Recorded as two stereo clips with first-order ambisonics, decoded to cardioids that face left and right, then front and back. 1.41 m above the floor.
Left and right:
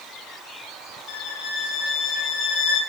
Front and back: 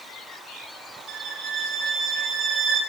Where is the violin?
125° left, 1.0 m.